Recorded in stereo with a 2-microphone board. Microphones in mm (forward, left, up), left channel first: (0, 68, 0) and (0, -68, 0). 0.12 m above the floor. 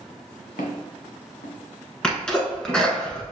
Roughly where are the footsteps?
Left.